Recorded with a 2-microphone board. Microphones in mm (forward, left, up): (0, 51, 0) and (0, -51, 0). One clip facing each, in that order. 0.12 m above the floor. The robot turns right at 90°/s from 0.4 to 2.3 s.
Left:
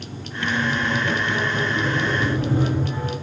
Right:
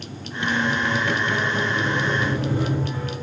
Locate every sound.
0.4 s a squeak: 70° right, 1.2 m; by 3.1 s 100° left, 1.2 m